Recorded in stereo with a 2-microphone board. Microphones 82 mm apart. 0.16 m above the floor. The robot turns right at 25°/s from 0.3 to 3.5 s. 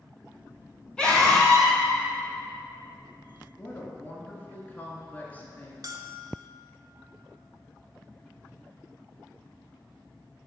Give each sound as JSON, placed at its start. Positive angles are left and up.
{"t": 1.0, "sound": "a scream", "side_deg": 10, "distance_m": 1.7}
{"t": 3.6, "sound": "a woman speaking", "side_deg": 20, "distance_m": 1.6}
{"t": 5.8, "sound": "a bell", "side_deg": -50, "distance_m": 0.6}